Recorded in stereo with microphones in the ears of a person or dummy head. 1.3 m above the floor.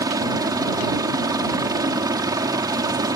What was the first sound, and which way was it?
A helicopter, 20° right (ahead or behind).